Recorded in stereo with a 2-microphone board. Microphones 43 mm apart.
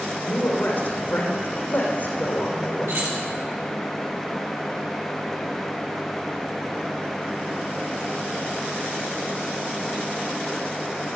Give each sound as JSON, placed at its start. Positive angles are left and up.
{"t": 0.2, "sound": "a woman speaking", "side_deg": 50, "distance_m": 5.0}
{"t": 2.9, "sound": "keys jangling", "side_deg": -55, "distance_m": 7.5}